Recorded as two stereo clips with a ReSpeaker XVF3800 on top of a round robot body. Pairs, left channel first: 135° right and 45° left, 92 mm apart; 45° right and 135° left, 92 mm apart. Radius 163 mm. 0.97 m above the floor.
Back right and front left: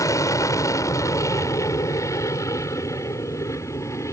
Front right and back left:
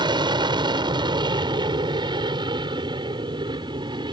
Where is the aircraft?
170° left.